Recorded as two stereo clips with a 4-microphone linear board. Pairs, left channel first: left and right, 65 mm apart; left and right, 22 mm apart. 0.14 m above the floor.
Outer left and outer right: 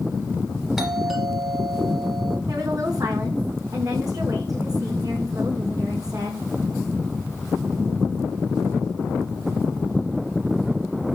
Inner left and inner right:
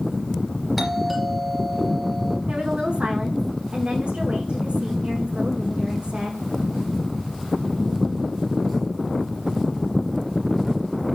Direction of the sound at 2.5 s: 60° right (ahead or behind).